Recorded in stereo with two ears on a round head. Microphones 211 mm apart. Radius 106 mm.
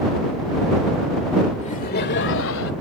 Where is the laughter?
30° left (ahead or behind); by 2.7 s 60° left (ahead or behind).